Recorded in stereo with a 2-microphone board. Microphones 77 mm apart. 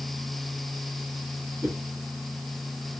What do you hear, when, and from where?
1.6 s a whoosh: 5° right (ahead or behind), 1.5 m